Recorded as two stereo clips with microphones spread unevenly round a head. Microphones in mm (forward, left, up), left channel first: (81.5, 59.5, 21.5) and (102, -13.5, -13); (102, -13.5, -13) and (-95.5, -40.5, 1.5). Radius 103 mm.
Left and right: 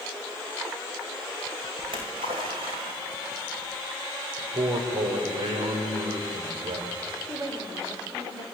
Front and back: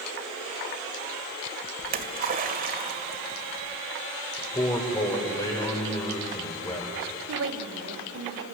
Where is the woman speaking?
145° right, 2.5 m.